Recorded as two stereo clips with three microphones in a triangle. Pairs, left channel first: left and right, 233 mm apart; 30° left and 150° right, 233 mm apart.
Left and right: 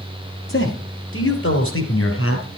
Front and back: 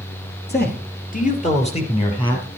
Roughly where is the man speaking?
Left.